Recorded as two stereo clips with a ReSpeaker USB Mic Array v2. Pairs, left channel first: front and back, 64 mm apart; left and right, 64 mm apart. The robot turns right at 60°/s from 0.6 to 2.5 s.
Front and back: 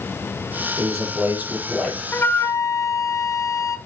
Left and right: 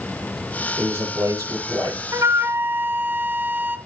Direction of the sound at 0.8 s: 150° right.